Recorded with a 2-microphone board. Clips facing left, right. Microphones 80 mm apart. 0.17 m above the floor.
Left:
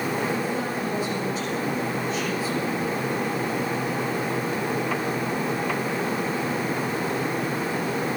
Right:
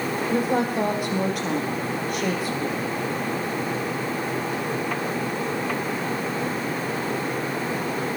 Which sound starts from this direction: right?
A woman speaking, at 0.3 s.